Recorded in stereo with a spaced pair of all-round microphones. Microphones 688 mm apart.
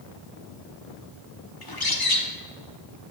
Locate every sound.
1.6 s a bird: 35° left (ahead or behind), 0.8 m